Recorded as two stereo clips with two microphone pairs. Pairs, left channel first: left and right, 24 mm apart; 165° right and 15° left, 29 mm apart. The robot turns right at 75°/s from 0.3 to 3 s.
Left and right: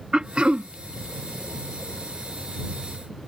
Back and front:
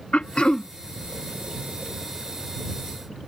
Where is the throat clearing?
130° right; by 0.7 s 100° right.